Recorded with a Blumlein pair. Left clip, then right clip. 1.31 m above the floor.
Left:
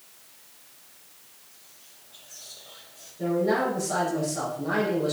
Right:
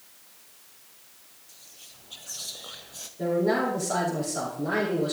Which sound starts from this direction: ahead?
A man speaking, at 3.2 s.